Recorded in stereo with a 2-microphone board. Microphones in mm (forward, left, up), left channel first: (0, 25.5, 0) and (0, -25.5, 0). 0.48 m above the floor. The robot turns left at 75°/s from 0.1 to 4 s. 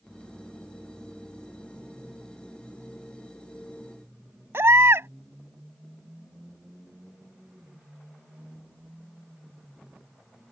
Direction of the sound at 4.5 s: 60° right (ahead or behind).